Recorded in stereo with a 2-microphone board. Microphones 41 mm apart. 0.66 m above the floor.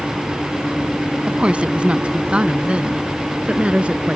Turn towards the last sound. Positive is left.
turn(degrees=-30)  # may be behind; listen again after turning